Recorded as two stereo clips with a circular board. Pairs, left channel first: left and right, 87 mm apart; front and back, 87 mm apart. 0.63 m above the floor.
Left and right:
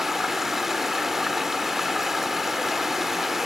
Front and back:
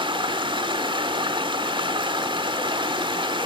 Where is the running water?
175° right, 1.2 m.